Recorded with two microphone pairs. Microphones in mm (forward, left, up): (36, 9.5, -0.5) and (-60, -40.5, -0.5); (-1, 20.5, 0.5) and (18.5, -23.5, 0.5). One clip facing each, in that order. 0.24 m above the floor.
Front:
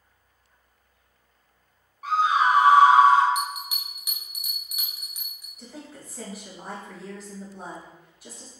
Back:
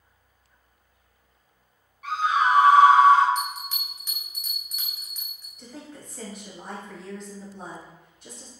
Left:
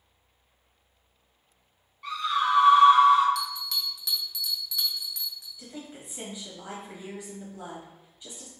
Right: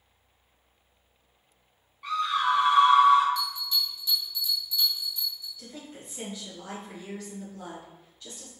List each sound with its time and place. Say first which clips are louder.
2.0 s a scream: front 2 dB, right 1 dB; 15° left, 1.7 m
3.4 s a bell: front 1 dB, right 1 dB; 105° left, 0.8 m
5.6 s a woman speaking: even, left 1 dB; 110° left, 1.1 m